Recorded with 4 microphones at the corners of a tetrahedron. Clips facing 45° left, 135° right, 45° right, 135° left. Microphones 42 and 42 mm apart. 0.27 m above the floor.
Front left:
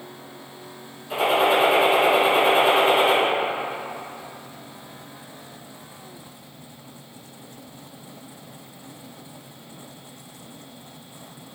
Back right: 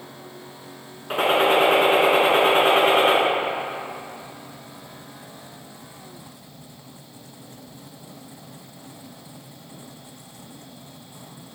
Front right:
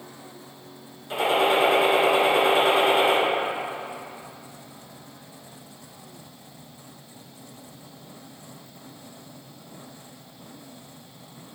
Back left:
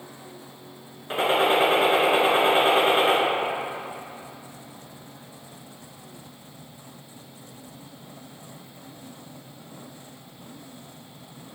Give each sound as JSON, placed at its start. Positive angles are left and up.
{"t": 1.1, "sound": "a gunshot", "azimuth_deg": -170, "distance_m": 2.5}